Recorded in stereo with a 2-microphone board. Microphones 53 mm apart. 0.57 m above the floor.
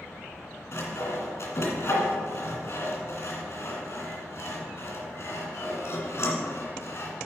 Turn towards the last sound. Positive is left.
turn(degrees=60)  # may be behind; listen again after turning